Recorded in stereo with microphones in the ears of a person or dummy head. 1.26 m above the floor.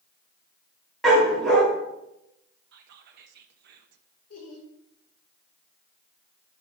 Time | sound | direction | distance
1.0 | a dog barking | centre (ahead or behind) | 1.6 m
2.7 | whispering | 65° right (ahead or behind) | 0.6 m
4.3 | laughter | 80° left | 2.5 m